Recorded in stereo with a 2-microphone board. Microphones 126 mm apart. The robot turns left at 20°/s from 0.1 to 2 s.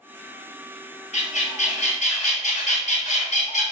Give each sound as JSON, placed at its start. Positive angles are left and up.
{"t": 1.1, "sound": "a bird", "side_deg": 65, "distance_m": 1.4}